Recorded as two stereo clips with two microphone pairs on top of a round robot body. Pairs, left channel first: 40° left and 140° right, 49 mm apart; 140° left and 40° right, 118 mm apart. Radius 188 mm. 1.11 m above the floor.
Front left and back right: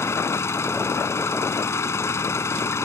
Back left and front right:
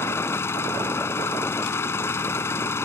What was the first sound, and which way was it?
An engine running, 70° left.